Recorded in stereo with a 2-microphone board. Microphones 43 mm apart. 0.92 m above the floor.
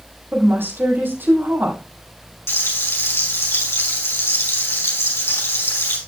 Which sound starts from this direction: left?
Frying, at 2.5 s.